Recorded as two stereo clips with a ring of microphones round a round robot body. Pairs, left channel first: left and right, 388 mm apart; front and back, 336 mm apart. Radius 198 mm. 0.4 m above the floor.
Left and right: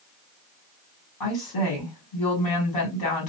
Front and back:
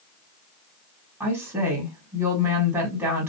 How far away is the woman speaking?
About 1.9 m.